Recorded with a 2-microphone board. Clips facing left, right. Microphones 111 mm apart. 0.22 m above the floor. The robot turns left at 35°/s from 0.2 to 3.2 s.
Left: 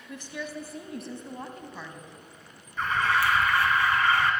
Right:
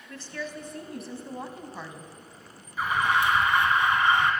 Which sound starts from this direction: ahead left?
A woman speaking, at 0.1 s.